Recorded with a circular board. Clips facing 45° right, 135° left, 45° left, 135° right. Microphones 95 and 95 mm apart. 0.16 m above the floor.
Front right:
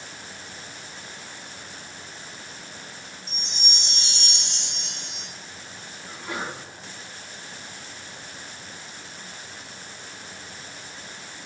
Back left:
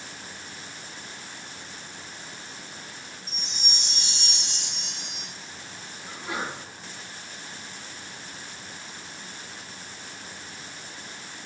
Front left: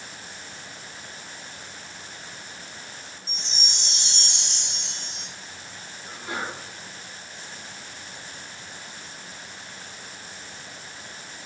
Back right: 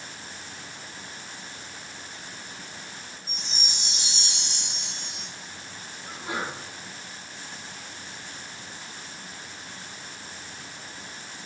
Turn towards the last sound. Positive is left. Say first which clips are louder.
# even, even
turn(degrees=-150)